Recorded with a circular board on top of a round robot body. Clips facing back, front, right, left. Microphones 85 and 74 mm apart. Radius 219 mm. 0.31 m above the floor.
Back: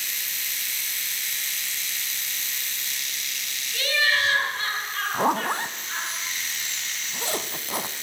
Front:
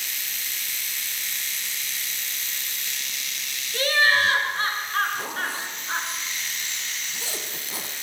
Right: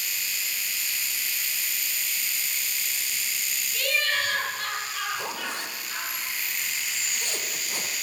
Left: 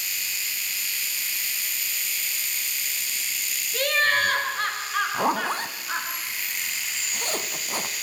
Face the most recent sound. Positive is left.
turn(degrees=140)